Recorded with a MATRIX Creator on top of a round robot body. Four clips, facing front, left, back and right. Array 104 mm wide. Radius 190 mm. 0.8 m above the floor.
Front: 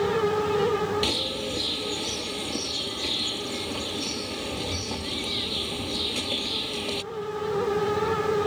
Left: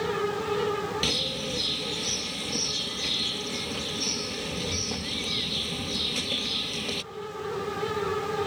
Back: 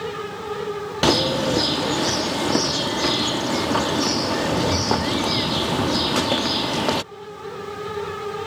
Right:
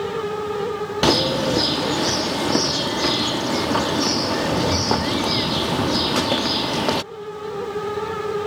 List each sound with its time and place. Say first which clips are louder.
1.0 s a bird: right 14 dB, back 11 dB; 130° right